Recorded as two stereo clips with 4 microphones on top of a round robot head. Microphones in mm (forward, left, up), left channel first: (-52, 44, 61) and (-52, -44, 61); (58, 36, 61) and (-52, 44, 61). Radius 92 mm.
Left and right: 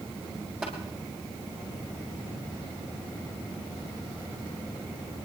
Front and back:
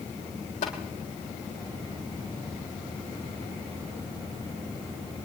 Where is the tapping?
Straight ahead, 5.5 m.